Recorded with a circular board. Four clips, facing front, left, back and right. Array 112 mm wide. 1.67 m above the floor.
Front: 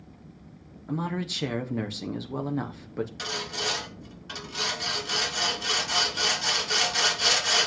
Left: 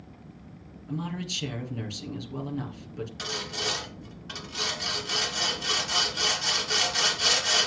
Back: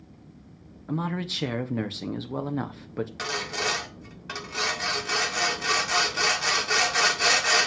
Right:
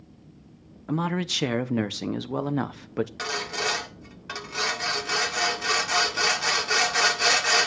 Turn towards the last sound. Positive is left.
turn(degrees=-130)